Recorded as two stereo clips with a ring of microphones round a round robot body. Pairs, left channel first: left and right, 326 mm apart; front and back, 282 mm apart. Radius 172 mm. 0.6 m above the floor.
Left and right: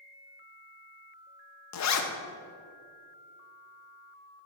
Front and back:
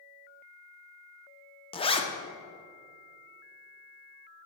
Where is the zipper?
70° left, 0.9 m.